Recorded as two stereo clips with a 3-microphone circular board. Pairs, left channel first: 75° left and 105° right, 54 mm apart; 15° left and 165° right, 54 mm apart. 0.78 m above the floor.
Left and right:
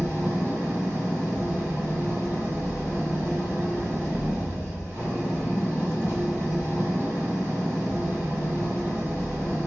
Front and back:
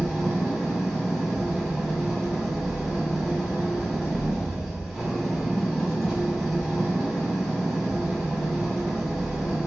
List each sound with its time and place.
0.0 s an engine running: 75° right, 2 m